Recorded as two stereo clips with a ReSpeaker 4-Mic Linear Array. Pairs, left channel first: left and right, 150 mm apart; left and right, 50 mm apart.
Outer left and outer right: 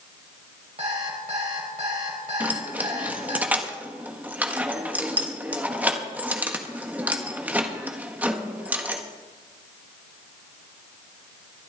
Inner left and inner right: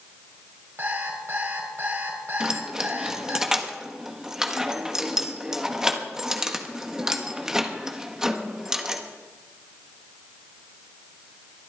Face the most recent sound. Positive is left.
turn(degrees=-10)  # may be behind; listen again after turning